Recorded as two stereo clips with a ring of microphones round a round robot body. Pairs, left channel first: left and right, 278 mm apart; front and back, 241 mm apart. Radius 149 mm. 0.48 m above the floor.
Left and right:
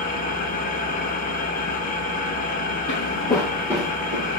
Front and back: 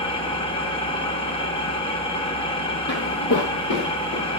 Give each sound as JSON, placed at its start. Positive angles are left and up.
{"t": 0.0, "sound": "an engine running", "azimuth_deg": 55, "distance_m": 1.0}
{"t": 2.9, "sound": "footsteps", "azimuth_deg": 40, "distance_m": 1.0}